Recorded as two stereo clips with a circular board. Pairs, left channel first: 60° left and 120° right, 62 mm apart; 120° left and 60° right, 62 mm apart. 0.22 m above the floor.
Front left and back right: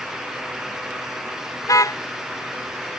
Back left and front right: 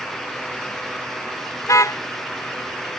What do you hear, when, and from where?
1.6 s a car horn: 85° left